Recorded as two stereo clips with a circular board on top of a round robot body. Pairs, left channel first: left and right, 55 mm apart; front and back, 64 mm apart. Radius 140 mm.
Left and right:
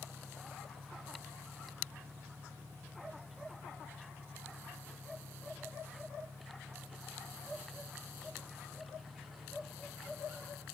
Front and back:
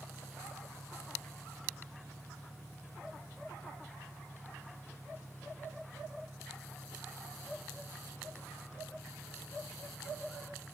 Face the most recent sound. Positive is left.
turn(degrees=-110)